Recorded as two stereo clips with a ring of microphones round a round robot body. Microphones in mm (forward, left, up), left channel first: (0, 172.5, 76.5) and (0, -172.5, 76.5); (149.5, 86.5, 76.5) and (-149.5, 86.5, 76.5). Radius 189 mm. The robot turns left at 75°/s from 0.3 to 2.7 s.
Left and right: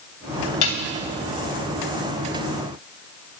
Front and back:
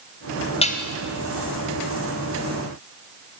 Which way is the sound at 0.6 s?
70° left.